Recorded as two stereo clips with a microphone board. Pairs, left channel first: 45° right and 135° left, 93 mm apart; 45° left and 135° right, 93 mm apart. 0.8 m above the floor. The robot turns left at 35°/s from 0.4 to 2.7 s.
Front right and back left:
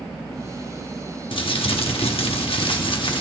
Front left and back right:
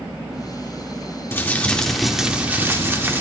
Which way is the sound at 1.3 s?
20° right.